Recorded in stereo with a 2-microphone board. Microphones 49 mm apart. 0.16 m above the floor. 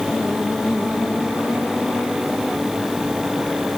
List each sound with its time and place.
Only background noise.